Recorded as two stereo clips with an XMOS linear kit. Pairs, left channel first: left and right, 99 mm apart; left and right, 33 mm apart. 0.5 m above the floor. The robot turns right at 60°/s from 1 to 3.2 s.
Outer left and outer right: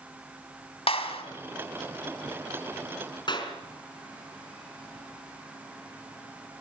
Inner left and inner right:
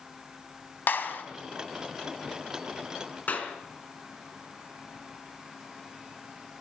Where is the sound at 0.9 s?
75° left (ahead or behind), 2.5 m; by 1.2 s 80° left, 2.5 m.